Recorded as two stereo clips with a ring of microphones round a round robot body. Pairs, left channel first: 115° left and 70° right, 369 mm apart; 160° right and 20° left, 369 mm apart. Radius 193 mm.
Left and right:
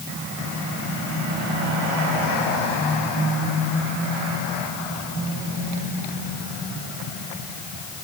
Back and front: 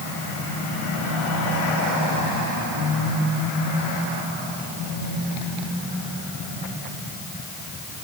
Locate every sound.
Only background noise.